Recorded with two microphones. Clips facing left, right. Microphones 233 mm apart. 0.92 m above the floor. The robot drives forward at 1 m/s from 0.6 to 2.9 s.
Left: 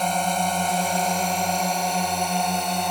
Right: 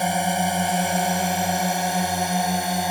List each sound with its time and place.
0.0 s a drone: 10° right (ahead or behind); by 2.9 s 5° right (ahead or behind)